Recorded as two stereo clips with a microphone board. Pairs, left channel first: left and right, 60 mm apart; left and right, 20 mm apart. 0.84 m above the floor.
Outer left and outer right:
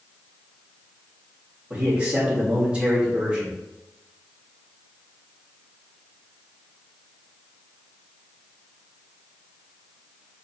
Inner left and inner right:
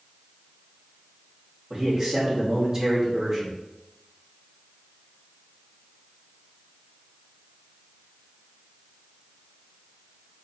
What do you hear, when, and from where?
1.7 s a man speaking: 20° right (ahead or behind), 1.7 m